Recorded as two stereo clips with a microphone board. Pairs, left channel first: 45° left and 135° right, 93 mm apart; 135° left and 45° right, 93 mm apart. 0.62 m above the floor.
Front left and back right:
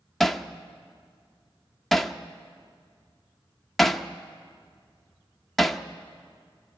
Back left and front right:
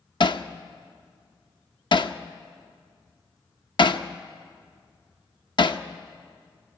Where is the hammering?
130° left, 0.7 m.